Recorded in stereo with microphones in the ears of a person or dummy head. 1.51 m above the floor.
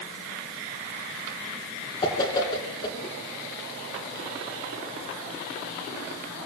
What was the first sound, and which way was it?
A whoosh, 20° left (ahead or behind).